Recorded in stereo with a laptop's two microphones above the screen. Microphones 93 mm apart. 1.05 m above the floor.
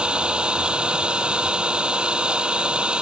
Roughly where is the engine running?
Centre.